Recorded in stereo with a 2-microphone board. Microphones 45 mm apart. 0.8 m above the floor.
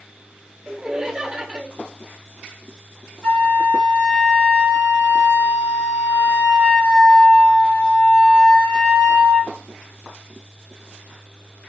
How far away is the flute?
About 1.3 m.